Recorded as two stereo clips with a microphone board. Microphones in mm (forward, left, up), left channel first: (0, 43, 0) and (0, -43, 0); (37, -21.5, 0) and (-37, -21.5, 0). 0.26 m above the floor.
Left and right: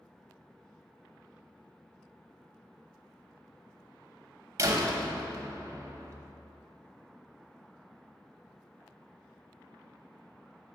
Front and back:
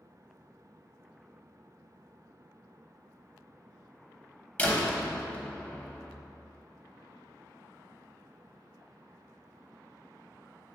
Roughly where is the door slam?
Ahead right.